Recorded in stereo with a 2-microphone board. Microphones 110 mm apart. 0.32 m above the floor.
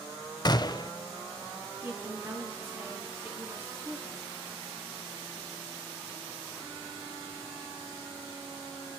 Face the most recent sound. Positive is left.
turn(degrees=-20)  # may be behind; listen again after turning